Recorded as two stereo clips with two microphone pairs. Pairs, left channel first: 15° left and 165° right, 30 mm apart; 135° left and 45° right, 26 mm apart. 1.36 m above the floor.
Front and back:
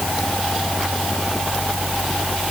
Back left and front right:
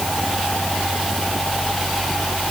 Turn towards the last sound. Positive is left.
No sound to turn to.